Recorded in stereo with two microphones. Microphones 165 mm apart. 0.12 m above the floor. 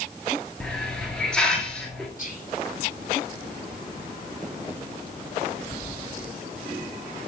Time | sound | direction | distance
0.6 | a hiss | 5° left (ahead or behind) | 0.8 m
2.2 | whispering | 50° left (ahead or behind) | 1.8 m